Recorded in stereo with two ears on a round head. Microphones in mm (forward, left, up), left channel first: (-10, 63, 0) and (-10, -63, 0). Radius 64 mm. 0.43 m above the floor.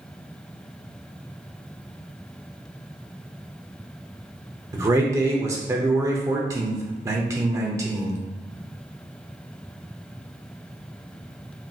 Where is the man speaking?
20° right (ahead or behind), 0.8 m.